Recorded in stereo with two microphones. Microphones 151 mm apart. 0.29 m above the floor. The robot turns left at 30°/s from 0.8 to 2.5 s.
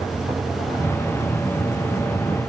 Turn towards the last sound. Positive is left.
No sound to turn to.